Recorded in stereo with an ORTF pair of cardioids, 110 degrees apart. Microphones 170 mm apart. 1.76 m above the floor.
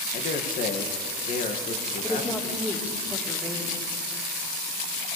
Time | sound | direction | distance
0.1 | a man speaking | 50° left | 2.5 m
2.0 | a woman speaking | 15° left | 3.5 m